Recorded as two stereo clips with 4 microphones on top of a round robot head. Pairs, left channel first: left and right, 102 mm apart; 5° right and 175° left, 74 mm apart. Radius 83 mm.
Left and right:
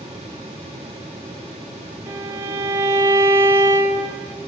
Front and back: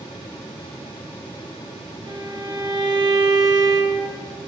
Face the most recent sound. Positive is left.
turn(degrees=-155)